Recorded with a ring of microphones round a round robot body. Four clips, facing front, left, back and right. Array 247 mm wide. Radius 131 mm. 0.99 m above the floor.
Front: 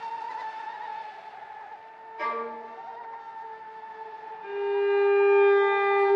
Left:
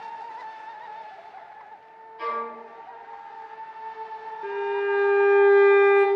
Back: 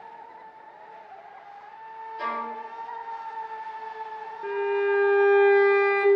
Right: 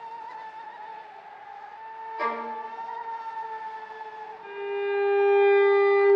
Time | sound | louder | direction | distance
2.2 | a violin | even, even | 85° right | 0.8 m
4.4 | a violin | left 4 dB, back 1 dB | 145° left | 0.7 m